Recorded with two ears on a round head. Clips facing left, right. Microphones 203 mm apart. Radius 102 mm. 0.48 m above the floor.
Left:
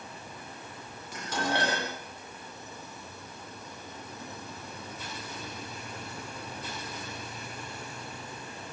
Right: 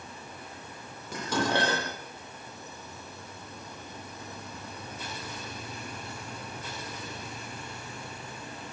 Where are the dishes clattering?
65° right (ahead or behind), 9.5 m.